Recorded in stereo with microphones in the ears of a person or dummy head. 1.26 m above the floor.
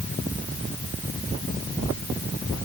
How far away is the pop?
No pop in this recording.